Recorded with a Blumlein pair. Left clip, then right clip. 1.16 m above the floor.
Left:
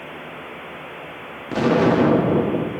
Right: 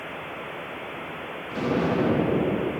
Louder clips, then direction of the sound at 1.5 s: Left 8 dB; 30° left.